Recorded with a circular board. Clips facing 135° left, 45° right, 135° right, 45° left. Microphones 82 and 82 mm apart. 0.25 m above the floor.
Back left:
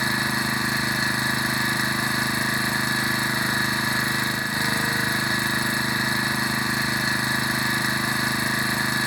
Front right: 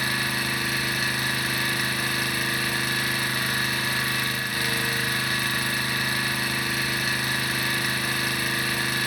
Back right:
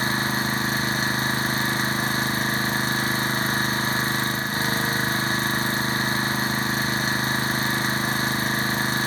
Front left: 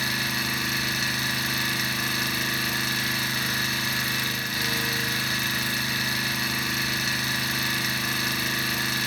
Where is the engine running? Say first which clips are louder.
Back left 3 dB, back right 5 dB; 170° right, 1.0 m.